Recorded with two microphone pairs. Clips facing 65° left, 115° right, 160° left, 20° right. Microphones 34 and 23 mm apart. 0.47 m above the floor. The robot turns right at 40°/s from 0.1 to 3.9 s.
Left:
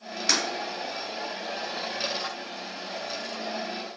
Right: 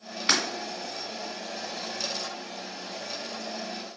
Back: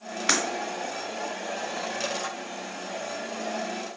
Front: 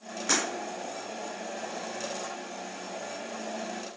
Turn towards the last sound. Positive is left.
turn(degrees=-30)